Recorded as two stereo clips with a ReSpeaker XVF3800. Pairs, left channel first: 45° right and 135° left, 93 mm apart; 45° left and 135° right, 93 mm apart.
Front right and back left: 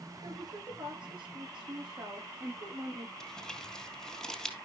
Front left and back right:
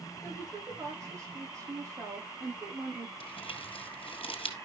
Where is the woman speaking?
170° left, 6 m.